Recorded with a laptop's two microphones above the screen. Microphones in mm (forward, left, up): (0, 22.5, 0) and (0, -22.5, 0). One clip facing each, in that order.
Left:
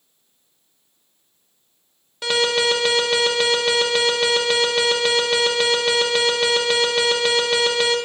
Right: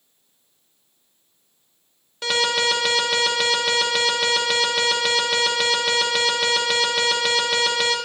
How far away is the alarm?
About 0.8 m.